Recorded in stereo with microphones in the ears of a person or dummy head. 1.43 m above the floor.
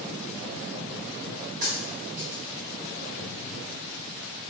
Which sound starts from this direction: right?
A dropped coin, at 1.6 s.